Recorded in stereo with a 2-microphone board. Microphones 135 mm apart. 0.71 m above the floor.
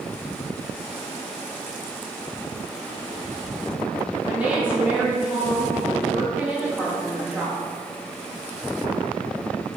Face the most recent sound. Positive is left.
turn(degrees=-10)  # may be behind; listen again after turning